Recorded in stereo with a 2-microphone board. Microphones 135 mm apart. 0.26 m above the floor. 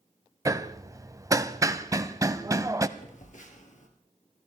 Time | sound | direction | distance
0.5 | hammering | 25° right (ahead or behind) | 0.6 m
3.0 | a phone buzzing | 65° left (ahead or behind) | 2.5 m